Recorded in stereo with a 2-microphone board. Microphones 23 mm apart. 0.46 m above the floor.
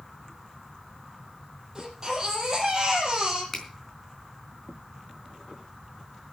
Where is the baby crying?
25° right (ahead or behind), 5.5 m.